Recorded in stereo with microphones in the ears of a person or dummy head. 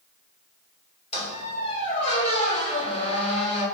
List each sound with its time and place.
1.1 s a squeak: 40° left (ahead or behind), 1.7 m